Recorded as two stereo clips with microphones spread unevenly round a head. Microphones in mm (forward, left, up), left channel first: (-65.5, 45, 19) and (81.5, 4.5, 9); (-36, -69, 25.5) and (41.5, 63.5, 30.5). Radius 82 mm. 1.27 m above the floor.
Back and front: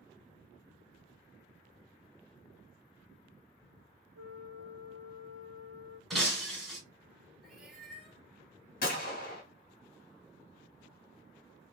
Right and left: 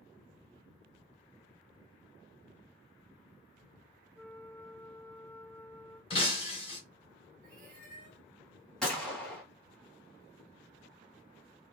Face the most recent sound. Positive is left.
turn(degrees=150)